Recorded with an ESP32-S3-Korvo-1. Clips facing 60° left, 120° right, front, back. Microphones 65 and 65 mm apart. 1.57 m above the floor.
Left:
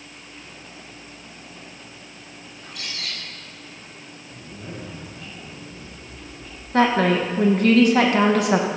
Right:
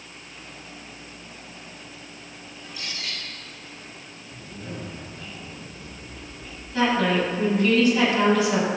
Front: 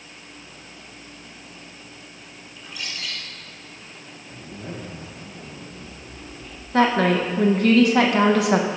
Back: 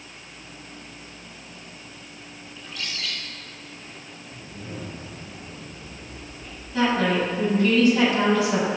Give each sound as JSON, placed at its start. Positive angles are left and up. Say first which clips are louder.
{"t": 2.6, "sound": "a bird", "louder": "left 1 dB, even", "azimuth_deg": 80, "distance_m": 3.5}
{"t": 4.3, "sound": "a zipper", "louder": "even, front 3 dB", "azimuth_deg": -20, "distance_m": 2.0}
{"t": 6.7, "sound": "a woman speaking", "louder": "left 4 dB, front 3 dB", "azimuth_deg": 25, "distance_m": 2.0}